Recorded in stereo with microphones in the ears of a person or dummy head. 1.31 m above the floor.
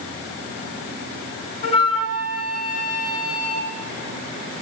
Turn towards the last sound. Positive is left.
turn(degrees=40)  # may be behind; listen again after turning